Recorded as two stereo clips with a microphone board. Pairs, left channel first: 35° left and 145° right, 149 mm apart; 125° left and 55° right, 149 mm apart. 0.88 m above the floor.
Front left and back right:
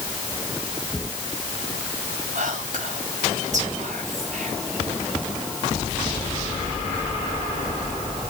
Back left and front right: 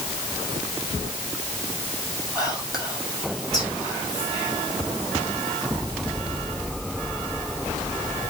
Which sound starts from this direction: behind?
Whispering, at 2.4 s.